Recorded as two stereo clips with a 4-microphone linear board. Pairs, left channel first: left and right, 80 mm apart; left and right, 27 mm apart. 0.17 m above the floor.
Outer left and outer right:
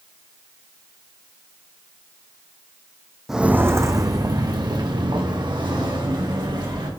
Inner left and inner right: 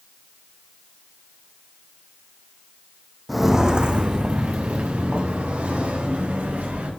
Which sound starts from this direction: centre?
Footsteps, at 3.3 s.